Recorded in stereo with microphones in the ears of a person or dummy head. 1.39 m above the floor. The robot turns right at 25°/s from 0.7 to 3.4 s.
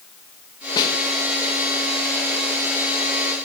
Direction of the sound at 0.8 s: 25° left (ahead or behind).